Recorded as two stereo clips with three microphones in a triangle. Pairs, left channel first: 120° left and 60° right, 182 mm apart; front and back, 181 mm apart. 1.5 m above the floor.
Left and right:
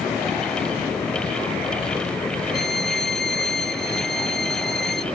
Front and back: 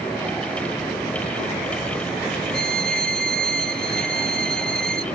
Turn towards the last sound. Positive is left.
turn(degrees=-150)